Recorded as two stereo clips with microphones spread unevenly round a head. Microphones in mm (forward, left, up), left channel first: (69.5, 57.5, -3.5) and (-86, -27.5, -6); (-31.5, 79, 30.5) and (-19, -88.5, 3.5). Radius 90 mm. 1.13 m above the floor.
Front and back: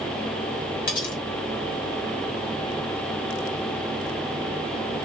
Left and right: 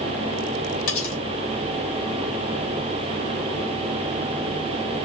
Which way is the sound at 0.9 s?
70° left.